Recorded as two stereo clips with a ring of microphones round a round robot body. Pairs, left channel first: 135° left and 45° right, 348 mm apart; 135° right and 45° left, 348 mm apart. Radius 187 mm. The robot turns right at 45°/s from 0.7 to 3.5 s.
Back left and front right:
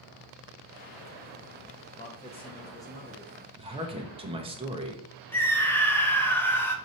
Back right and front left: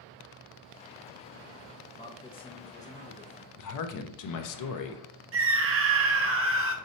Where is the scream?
55° left, 0.7 m.